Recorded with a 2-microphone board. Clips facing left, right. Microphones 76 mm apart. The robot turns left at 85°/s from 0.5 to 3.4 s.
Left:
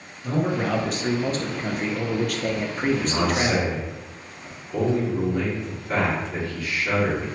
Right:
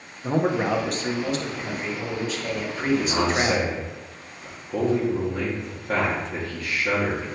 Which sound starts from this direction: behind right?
A man speaking, at 0.2 s.